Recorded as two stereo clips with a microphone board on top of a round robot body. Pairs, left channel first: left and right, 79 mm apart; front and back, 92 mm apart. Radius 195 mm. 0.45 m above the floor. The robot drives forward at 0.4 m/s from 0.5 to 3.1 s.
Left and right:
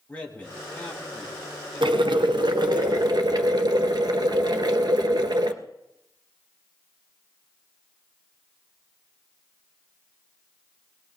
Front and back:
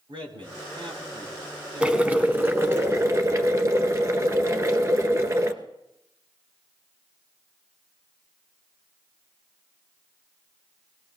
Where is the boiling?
100° right, 1.2 m; by 5.5 s 125° right, 1.4 m.